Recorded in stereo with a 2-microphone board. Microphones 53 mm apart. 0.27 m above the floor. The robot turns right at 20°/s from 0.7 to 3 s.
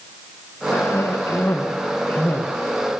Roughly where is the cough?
Behind left.